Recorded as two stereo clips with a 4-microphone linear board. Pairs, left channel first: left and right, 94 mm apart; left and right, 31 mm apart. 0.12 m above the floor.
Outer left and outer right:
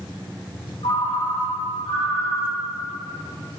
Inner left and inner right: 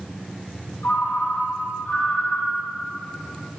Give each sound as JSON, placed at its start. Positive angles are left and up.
{"t": 0.8, "sound": "a ringtone", "side_deg": 70, "distance_m": 3.5}